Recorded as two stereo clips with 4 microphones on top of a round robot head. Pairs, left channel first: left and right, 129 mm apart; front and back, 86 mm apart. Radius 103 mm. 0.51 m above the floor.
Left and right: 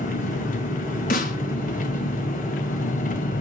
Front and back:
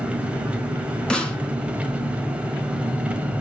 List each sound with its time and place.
0.0 s an engine running: 105° left, 2.5 m
1.1 s a snare drum: 80° left, 3.5 m